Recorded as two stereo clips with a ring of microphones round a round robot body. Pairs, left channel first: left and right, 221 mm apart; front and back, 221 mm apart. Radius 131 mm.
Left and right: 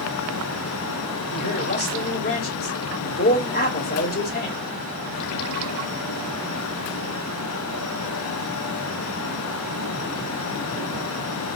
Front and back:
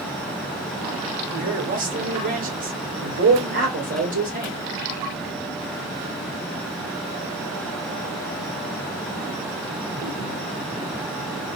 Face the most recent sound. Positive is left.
turn(degrees=130)